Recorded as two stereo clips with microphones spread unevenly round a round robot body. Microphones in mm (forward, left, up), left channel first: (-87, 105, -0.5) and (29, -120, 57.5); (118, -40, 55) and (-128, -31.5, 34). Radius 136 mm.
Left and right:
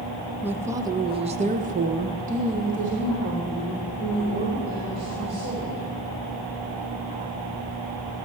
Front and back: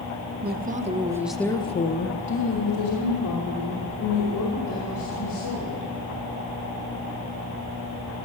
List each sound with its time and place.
0.4 s a woman speaking: 155° right, 1.0 m; by 5.8 s 10° left, 3 m